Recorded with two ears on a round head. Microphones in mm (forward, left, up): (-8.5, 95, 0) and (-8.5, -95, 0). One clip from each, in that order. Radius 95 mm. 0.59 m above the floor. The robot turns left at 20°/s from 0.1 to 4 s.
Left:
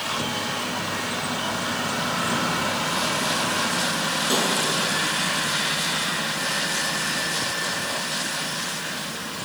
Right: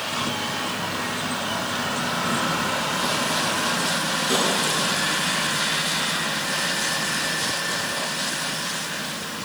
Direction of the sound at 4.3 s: 15° left (ahead or behind).